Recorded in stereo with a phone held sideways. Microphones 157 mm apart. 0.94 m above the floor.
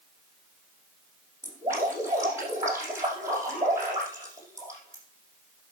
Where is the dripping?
15° right (ahead or behind), 6 m.